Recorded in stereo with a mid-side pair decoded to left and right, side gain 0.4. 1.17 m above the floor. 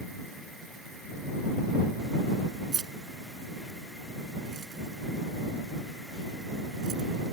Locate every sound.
2.7 s keys jangling: 50° right; by 7.1 s 60° right